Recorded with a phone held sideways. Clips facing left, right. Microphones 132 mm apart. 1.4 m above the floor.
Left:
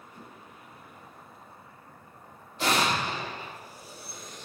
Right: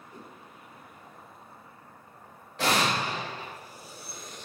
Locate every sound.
0.1 s a whoosh: 35° right (ahead or behind), 1.3 m
2.6 s an explosion: 80° right, 2.5 m